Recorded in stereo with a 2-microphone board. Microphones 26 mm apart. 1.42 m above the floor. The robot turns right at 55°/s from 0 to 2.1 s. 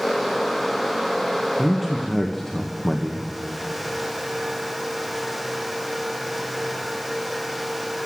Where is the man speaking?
15° right (ahead or behind), 1.2 m; by 3.3 s 10° left (ahead or behind), 1.2 m.